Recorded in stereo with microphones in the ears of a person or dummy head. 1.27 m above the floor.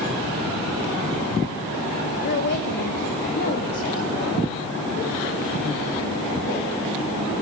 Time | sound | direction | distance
2.2 | a woman speaking | 55° left (ahead or behind) | 1.1 m